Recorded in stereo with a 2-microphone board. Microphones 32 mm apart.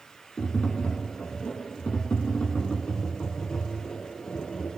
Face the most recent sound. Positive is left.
turn(degrees=40)  # may be behind; listen again after turning